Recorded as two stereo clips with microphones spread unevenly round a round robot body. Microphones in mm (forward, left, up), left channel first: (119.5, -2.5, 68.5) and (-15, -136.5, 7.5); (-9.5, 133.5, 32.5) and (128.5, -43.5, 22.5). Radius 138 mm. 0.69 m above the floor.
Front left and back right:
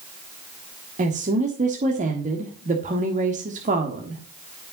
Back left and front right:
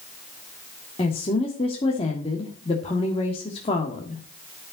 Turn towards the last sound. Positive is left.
turn(degrees=-165)